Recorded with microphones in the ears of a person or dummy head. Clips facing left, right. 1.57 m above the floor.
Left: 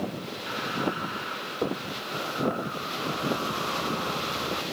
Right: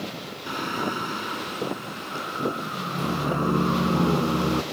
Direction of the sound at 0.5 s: 45° right (ahead or behind).